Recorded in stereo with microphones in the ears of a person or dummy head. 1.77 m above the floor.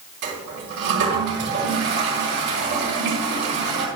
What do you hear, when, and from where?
0.2 s a toilet flushing: 65° right (ahead or behind), 4.5 m